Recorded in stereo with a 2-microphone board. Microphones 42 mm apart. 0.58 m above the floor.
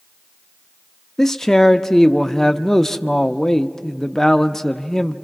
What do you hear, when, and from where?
1.2 s a man speaking: 15° left (ahead or behind), 0.7 m